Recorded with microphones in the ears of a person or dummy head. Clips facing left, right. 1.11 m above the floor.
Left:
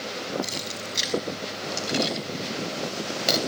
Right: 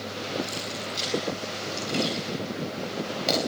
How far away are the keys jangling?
About 6 m.